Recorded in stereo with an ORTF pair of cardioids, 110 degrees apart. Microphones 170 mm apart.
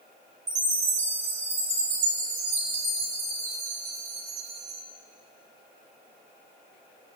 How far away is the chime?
About 6.5 m.